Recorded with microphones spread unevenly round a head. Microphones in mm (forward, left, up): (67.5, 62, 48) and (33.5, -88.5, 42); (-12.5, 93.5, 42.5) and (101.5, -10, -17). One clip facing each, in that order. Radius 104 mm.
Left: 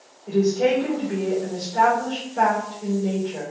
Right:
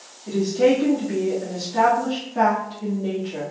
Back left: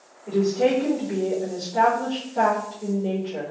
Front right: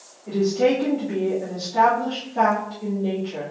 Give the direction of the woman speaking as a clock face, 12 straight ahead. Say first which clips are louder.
Right 1 dB, front right 1 dB; 4 o'clock.